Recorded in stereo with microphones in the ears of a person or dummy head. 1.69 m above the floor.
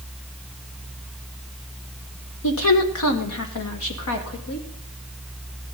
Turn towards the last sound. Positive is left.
turn(degrees=75)  # may be behind; listen again after turning